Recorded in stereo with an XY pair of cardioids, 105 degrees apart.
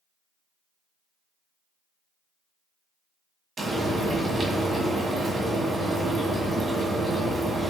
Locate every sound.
3.6 s frying: 35° right, 1.2 m